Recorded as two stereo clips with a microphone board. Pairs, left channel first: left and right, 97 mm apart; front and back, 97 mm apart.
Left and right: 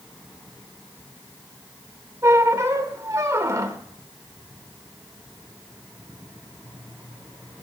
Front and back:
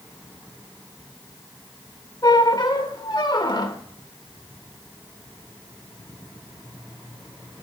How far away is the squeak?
About 1.0 m.